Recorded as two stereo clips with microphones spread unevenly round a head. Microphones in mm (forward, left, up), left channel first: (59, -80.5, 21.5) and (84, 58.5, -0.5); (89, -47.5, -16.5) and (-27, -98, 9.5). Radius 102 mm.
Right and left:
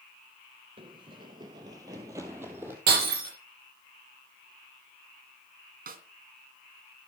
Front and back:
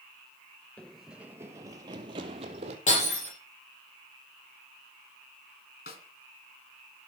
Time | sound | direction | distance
0.8 | running footsteps | 120° left | 1.1 m
2.9 | breaking glass | 85° left | 7 m
5.9 | a snare drum | 65° left | 3 m